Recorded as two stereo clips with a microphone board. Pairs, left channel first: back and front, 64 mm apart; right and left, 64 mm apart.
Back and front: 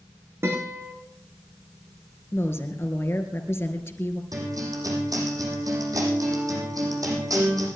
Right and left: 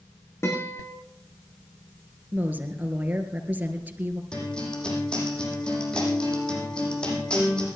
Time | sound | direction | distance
0.4 | a guitar | 45° right | 5.5 m
2.3 | a woman speaking | 145° left | 2.5 m
4.3 | a guitar | 15° right | 7 m